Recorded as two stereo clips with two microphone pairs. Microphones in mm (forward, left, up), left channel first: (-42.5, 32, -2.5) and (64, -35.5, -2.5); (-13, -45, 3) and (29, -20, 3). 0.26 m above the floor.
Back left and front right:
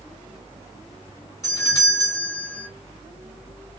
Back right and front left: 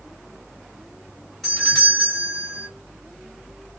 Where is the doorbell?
140° left, 1.7 m.